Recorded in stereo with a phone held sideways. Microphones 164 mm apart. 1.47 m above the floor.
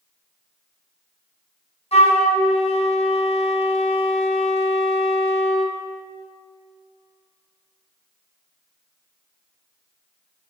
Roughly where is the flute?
Left.